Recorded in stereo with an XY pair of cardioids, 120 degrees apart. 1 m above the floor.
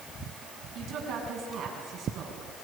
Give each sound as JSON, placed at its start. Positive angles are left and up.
{"t": 0.8, "sound": "a woman speaking", "azimuth_deg": -50, "distance_m": 7.0}